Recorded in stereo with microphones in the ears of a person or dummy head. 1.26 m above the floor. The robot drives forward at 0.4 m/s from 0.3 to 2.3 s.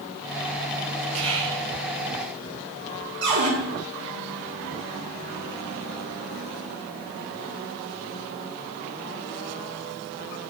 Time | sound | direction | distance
1.1 | whispering | 70° right (ahead or behind) | 1.2 m
3.2 | a cupboard door | 70° right (ahead or behind) | 2.5 m